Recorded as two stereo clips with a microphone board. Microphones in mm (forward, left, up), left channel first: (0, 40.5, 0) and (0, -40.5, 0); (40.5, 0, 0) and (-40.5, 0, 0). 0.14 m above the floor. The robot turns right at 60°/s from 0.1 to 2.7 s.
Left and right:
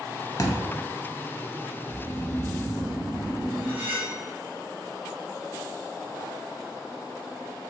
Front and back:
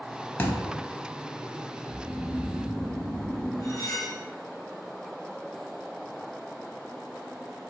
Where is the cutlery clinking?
30° right, 1.3 m.